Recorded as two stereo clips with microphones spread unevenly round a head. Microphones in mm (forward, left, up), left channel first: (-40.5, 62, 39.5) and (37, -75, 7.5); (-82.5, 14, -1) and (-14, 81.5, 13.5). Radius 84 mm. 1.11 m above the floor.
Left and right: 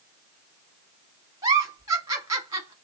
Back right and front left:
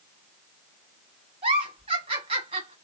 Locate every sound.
1.4 s a giggle: straight ahead, 1.1 m